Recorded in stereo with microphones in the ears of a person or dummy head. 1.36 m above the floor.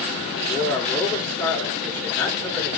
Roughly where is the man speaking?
Centre.